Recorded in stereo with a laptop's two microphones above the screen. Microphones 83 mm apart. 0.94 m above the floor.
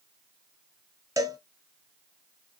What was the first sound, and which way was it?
A cowbell, 40° right (ahead or behind).